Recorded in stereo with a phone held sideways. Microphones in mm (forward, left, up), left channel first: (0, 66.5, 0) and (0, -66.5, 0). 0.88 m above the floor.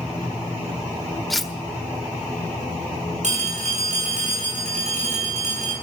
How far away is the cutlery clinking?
About 0.8 m.